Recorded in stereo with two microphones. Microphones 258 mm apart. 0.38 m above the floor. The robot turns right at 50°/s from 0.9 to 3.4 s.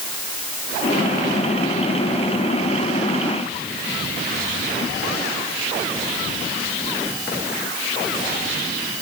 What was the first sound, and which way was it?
Only background noise.